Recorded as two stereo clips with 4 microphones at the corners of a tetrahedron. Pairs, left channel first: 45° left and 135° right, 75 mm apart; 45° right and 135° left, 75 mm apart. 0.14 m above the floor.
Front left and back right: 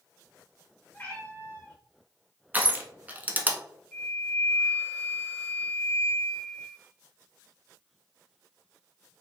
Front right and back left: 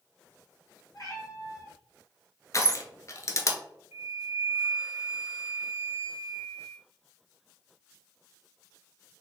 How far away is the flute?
About 2.0 m.